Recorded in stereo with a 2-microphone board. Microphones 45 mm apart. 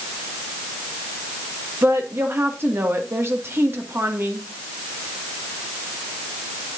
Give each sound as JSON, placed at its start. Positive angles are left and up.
{"t": 1.8, "sound": "a woman speaking", "side_deg": -60, "distance_m": 1.9}